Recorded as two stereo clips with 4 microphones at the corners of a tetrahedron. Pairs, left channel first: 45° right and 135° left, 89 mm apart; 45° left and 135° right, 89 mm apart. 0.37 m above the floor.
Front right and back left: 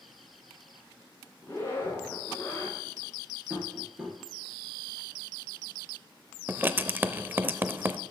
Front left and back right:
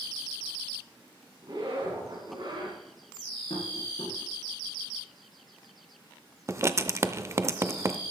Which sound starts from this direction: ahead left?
Tapping, at 3.5 s.